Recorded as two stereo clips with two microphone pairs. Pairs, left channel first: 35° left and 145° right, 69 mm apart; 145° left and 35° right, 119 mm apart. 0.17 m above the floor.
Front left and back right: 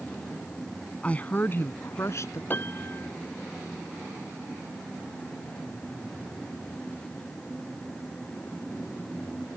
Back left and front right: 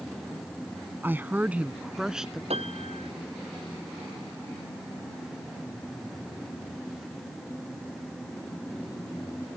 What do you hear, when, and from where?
1.0 s a woman speaking: straight ahead; by 2.4 s 50° left
2.5 s a piano: 20° right